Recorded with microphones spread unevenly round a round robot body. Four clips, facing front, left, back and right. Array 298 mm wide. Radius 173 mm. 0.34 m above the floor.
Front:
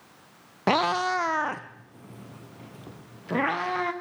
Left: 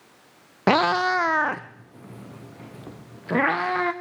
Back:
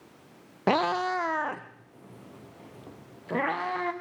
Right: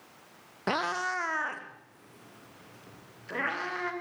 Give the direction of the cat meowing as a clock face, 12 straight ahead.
10 o'clock.